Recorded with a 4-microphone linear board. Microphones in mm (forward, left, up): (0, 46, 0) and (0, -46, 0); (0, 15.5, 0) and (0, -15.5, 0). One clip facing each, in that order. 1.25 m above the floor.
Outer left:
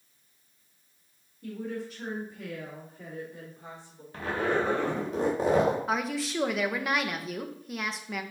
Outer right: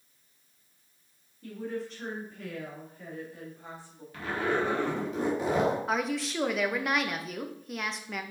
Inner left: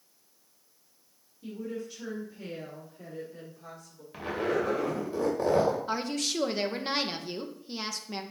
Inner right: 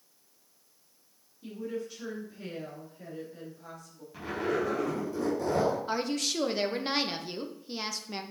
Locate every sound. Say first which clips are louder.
1.4 s a woman speaking: even, inner right 1 dB; centre (ahead or behind), 2.5 m; by 4.0 s 25° left (ahead or behind), 3.5 m
4.1 s a zipper: outer left 1 dB, inner left 1 dB; 35° left (ahead or behind), 2.5 m
5.9 s a woman speaking: even, even; centre (ahead or behind), 0.8 m